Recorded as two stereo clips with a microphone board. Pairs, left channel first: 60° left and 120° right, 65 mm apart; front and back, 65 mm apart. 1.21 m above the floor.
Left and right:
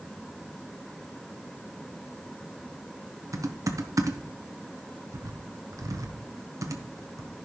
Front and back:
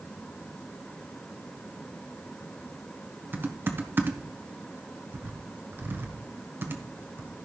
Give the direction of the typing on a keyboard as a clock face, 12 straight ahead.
4 o'clock.